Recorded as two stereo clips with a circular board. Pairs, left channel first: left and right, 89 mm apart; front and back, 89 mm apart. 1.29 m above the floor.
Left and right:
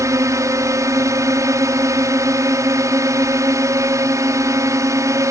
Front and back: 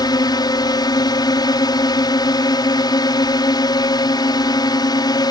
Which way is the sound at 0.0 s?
40° right.